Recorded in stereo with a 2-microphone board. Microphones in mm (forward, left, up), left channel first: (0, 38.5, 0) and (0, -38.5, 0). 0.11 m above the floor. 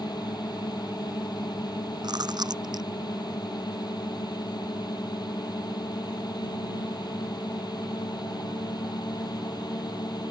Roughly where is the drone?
Left.